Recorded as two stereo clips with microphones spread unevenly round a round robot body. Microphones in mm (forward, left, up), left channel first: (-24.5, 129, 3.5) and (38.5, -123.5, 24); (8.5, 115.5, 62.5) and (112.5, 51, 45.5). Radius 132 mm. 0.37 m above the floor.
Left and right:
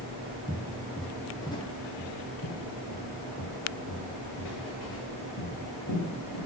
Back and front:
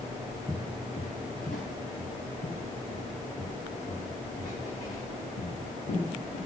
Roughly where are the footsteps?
Behind right.